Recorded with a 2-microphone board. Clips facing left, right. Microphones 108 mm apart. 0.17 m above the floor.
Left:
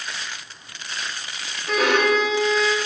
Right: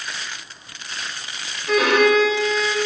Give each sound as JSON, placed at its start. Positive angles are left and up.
{"t": 1.7, "sound": "a violin", "side_deg": 0, "distance_m": 0.7}